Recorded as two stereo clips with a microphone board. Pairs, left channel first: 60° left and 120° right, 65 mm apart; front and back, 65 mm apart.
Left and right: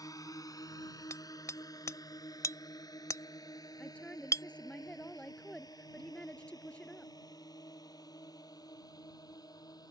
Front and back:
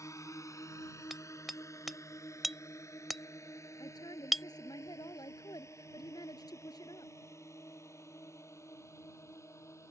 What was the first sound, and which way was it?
A drone, 35° left.